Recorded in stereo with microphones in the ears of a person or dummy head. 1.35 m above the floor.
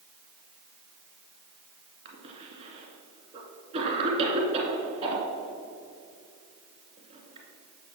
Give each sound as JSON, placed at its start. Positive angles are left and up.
{"t": 2.0, "sound": "a cough", "side_deg": -40, "distance_m": 2.5}